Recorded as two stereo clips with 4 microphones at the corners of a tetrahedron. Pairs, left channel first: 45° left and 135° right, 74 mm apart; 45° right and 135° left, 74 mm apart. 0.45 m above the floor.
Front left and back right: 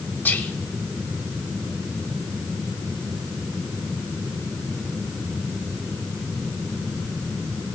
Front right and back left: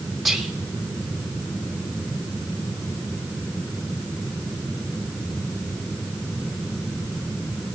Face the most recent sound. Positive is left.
turn(degrees=50)